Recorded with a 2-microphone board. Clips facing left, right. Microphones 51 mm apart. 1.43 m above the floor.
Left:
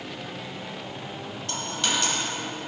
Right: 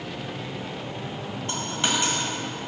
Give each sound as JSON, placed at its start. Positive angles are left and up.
{"t": 1.5, "sound": "a dropped coin", "side_deg": -20, "distance_m": 1.7}